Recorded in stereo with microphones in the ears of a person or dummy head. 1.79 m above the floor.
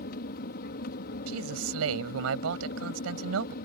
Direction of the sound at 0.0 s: 50° left (ahead or behind).